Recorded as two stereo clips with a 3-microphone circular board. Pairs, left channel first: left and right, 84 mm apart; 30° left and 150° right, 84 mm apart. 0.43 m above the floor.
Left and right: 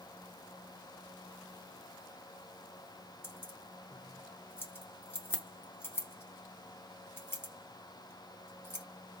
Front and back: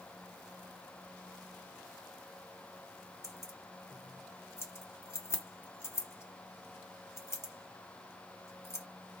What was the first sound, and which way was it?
Keys jangling, 50° left.